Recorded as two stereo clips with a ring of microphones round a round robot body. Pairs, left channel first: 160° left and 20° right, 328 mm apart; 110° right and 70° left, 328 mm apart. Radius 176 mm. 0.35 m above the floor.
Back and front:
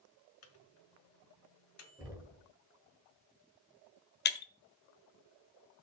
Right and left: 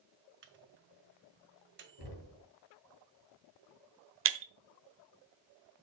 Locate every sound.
0.4 s a microwave: 120° left, 1.7 m
2.0 s knocking: 105° right, 4.5 m
4.2 s breaking glass: 105° left, 1.1 m